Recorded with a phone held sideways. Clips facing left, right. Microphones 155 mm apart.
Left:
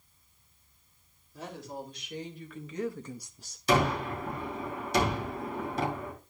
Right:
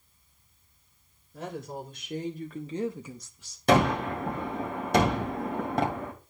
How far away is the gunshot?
About 2.5 m.